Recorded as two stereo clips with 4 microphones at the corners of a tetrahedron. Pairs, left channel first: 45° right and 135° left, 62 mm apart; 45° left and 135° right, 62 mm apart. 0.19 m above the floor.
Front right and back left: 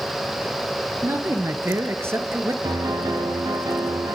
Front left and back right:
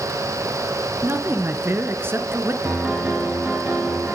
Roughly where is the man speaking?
Behind.